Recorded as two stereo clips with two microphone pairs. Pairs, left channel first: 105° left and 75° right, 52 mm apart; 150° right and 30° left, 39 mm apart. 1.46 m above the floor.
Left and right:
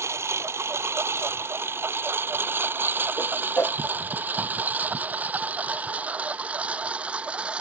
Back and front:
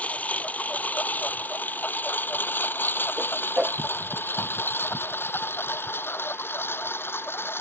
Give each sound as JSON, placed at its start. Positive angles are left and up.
{"t": 0.0, "sound": "a lawn mower", "azimuth_deg": -95}
{"t": 3.2, "sound": "a whoosh", "azimuth_deg": 75}